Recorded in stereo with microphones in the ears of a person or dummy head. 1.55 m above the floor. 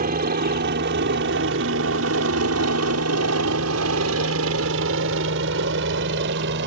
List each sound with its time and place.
0.0 s a helicopter: 45° right (ahead or behind); by 6.7 s 60° right (ahead or behind)